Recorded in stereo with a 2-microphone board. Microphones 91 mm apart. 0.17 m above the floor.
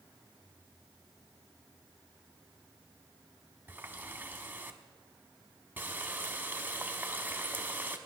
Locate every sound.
3.7 s a running tap: 20° right (ahead or behind), 0.9 m